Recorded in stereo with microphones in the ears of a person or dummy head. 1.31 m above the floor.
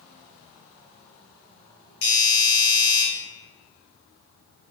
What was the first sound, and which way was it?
A doorbell, 60° left (ahead or behind).